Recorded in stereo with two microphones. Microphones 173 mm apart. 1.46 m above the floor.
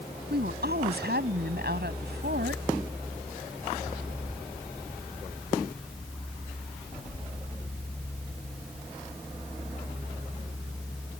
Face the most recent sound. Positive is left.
turn(degrees=-85)